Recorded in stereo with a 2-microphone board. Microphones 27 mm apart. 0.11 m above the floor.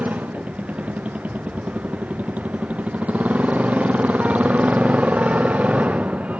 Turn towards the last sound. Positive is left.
turn(degrees=-60)  # may be behind; listen again after turning